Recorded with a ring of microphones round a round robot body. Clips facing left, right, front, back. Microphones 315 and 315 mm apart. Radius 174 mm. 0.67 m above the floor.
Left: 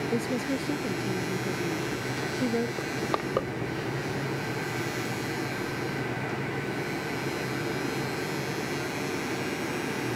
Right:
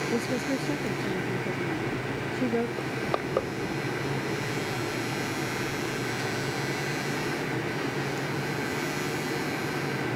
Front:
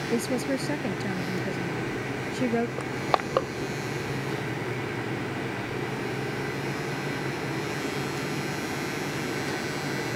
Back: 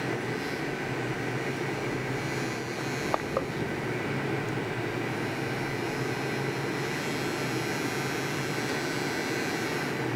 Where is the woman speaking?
5° left.